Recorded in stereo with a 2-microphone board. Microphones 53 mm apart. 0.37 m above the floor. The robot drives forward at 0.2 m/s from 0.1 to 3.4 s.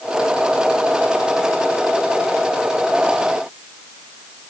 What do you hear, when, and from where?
Only background noise.